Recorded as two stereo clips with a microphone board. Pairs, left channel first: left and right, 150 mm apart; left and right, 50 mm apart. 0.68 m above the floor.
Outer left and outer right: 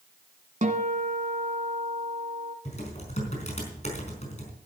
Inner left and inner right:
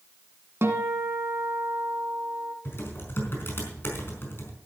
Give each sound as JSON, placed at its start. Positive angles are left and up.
{"t": 0.6, "sound": "a guitar", "side_deg": -55, "distance_m": 1.7}
{"t": 2.6, "sound": "typing on a keyboard", "side_deg": 50, "distance_m": 4.5}